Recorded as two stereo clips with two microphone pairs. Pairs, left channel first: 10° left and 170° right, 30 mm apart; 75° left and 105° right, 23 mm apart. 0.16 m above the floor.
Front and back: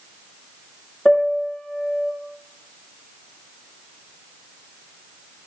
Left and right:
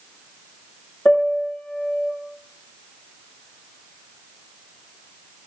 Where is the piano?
80° left, 5.5 m.